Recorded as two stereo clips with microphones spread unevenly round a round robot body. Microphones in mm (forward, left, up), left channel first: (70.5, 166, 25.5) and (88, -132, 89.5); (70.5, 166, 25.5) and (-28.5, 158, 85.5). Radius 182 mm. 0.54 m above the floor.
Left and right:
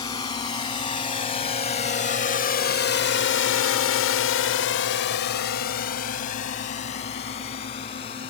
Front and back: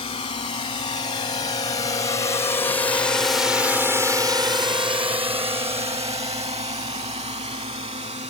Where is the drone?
20° left; by 8.3 s 165° left.